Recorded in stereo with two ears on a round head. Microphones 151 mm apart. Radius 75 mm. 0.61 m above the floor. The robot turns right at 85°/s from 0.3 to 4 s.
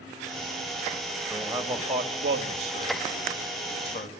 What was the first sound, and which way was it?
A man speaking, 175° left.